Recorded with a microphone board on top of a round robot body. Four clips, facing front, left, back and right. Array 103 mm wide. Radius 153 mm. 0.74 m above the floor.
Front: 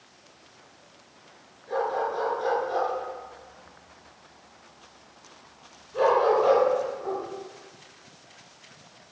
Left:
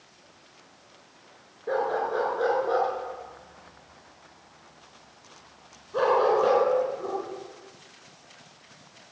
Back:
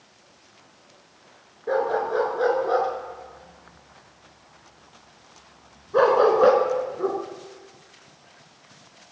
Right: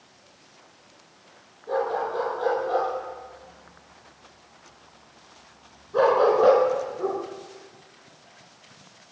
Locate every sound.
1.7 s a dog barking: 150° left, 4 m; by 7.2 s 160° right, 3.5 m